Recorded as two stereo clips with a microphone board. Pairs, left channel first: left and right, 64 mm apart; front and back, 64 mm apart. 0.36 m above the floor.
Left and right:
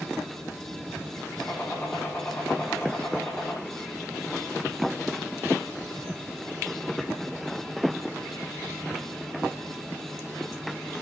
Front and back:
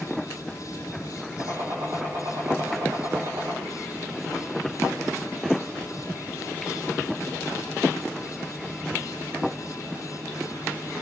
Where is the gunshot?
160° left, 4.5 m.